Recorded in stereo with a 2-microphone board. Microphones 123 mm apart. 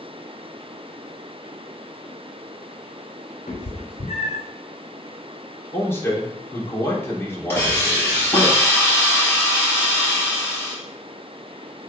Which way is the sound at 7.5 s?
20° left (ahead or behind).